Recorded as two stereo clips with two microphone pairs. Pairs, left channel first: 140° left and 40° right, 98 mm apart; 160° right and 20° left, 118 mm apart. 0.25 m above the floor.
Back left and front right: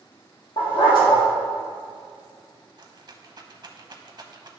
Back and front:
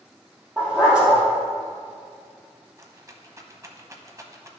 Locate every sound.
0.6 s a dog barking: 100° left, 3 m
2.8 s a rattle: 30° right, 0.8 m